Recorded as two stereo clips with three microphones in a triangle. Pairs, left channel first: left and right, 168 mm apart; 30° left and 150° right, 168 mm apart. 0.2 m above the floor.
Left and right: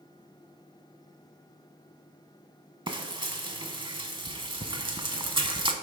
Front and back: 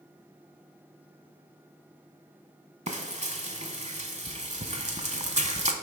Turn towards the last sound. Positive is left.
turn(degrees=-135)